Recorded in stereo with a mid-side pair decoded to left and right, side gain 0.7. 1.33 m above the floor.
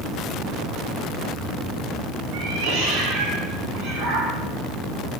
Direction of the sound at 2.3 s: 65° right.